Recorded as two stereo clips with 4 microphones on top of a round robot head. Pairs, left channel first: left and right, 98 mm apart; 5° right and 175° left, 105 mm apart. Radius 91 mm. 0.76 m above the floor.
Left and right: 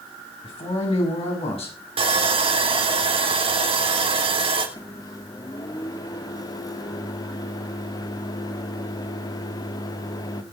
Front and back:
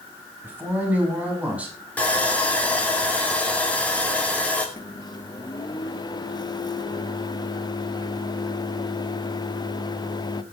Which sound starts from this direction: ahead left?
A microwave, at 4.8 s.